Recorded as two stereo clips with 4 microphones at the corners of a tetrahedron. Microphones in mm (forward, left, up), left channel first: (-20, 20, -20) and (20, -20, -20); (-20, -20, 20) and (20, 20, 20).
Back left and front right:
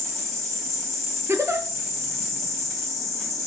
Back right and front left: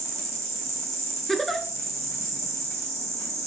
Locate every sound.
0.0 s an insect: 155° right, 1.8 m
1.3 s a giggle: 50° right, 0.6 m